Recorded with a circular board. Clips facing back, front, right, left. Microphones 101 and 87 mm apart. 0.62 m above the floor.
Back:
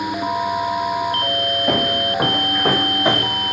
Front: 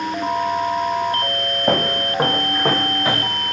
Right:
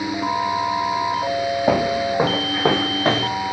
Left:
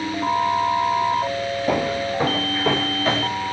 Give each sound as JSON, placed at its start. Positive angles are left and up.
{"t": 1.7, "sound": "footsteps", "azimuth_deg": -55, "distance_m": 1.6}